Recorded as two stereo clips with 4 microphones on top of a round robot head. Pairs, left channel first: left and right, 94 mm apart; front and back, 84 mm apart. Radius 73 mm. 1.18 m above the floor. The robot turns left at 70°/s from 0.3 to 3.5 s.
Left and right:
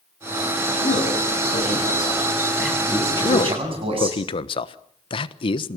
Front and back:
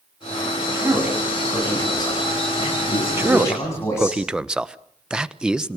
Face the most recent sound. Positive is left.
turn(degrees=100)